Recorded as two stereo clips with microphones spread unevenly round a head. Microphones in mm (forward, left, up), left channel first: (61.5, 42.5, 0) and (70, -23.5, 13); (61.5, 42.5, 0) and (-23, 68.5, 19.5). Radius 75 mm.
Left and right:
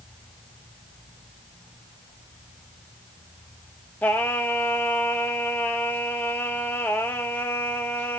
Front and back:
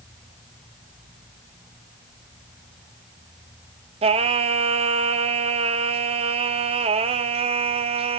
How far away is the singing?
About 0.6 m.